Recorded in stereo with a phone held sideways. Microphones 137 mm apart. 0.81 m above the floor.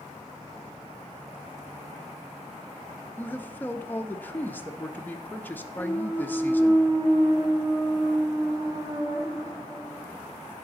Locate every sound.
3.2 s a man speaking: 15° left (ahead or behind), 0.6 m
5.8 s a clunk: 25° right (ahead or behind), 0.8 m